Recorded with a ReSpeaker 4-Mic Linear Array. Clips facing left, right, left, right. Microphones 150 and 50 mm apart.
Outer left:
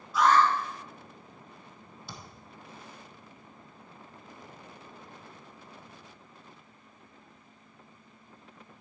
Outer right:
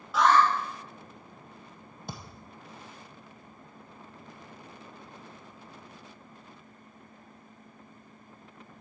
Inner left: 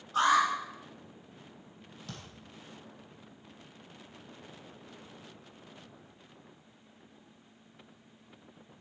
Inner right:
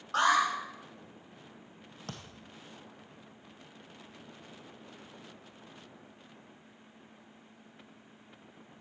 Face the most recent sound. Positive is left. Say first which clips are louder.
# outer right 5 dB, inner right 2 dB
turn(degrees=-50)  # may be behind; listen again after turning